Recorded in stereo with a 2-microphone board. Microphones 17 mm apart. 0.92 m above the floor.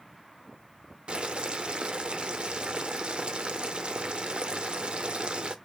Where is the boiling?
75° right (ahead or behind), 0.7 m.